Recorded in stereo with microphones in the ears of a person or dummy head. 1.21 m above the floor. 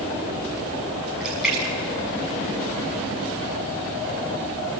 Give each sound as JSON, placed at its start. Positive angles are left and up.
{"t": 1.2, "sound": "a splash", "side_deg": 0, "distance_m": 6.5}